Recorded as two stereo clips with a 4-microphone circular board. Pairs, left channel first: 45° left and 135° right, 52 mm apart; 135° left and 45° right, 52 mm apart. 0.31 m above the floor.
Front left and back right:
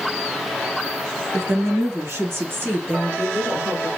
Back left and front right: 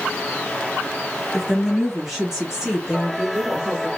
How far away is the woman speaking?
About 1.9 m.